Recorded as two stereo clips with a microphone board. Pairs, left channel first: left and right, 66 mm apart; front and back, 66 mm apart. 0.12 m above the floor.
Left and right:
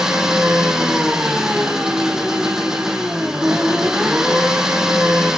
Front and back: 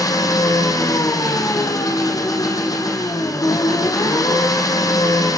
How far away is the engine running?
About 3.5 m.